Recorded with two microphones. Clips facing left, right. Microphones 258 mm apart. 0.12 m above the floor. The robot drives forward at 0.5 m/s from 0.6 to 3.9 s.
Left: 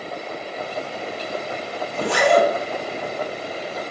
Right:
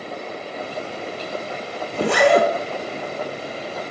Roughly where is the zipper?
Right.